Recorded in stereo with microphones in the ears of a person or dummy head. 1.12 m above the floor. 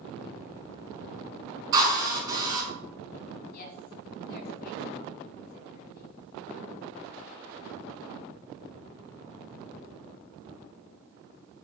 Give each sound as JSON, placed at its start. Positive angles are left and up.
{"t": 1.7, "sound": "a drill", "side_deg": -20, "distance_m": 4.5}
{"t": 3.5, "sound": "a woman speaking", "side_deg": 60, "distance_m": 3.5}